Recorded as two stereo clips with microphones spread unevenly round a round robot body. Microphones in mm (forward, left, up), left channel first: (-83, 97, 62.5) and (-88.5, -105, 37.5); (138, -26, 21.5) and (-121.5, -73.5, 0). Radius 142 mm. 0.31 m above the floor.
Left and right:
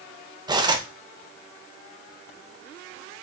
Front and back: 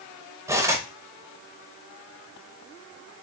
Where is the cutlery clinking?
110° right, 0.5 m.